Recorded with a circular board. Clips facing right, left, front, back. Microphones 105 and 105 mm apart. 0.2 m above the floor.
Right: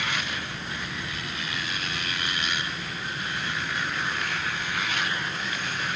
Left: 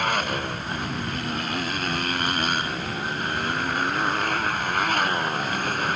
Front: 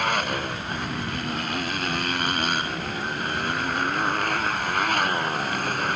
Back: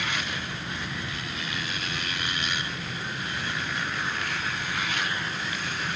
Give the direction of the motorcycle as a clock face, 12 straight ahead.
11 o'clock.